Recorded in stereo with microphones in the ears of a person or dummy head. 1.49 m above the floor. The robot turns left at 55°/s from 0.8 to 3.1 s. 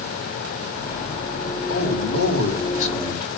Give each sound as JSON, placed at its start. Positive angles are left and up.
{"t": 1.7, "sound": "a man speaking", "azimuth_deg": 105, "distance_m": 2.5}